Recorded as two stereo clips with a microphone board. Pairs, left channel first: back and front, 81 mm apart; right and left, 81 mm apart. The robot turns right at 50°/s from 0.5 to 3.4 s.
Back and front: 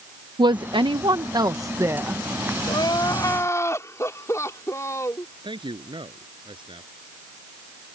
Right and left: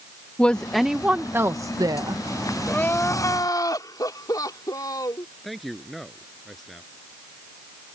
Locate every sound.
0.4 s a woman speaking: 15° right; by 2.2 s 70° left
2.7 s crying: 165° right; by 5.3 s 130° right
5.4 s a man speaking: straight ahead